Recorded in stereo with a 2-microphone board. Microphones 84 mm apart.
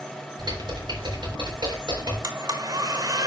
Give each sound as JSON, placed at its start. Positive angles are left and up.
{"t": 0.4, "sound": "typing on a keyboard", "side_deg": -60, "distance_m": 4.0}
{"t": 2.2, "sound": "a blender", "side_deg": -50, "distance_m": 1.4}